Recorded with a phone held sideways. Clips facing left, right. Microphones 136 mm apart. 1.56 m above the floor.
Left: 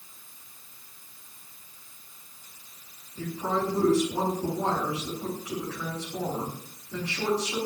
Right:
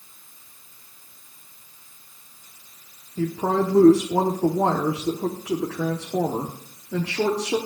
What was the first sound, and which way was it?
A woman speaking, 85° right.